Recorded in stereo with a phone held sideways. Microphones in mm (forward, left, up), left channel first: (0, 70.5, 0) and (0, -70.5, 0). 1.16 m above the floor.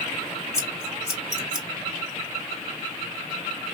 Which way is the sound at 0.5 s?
25° left (ahead or behind).